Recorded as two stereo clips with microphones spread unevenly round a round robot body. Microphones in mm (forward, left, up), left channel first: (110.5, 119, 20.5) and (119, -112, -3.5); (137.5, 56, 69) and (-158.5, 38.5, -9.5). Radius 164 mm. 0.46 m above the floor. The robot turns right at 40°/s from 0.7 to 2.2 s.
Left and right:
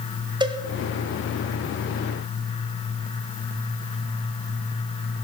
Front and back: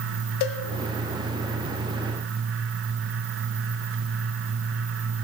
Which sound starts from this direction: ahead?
A cowbell, at 0.4 s.